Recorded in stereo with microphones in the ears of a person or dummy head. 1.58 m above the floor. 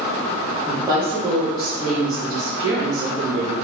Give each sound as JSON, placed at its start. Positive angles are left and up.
{"t": 0.7, "sound": "a woman speaking", "side_deg": -15, "distance_m": 2.0}